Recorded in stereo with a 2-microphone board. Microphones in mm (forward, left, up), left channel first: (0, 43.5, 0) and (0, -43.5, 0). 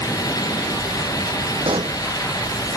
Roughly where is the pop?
Right.